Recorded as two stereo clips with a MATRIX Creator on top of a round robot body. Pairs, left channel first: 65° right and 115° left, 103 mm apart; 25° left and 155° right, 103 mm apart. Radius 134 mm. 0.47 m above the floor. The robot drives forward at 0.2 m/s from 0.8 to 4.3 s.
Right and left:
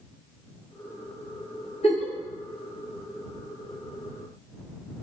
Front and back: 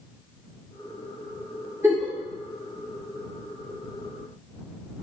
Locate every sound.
1.8 s a giggle: 90° right, 1.1 m; by 2.1 s 95° right, 1.1 m